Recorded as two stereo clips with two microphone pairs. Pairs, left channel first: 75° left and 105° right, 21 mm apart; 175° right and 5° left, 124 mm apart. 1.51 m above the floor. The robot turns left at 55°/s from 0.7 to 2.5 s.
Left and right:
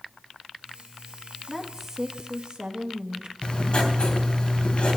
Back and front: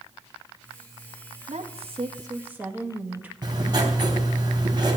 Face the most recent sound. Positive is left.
turn(degrees=50)